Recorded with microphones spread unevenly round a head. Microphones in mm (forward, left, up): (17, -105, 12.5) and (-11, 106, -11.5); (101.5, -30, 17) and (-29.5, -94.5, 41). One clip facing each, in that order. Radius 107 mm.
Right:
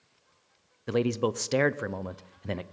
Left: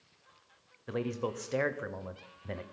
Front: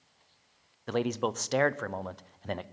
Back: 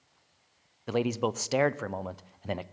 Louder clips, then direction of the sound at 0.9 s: Right 8 dB, back 1 dB; 65° right.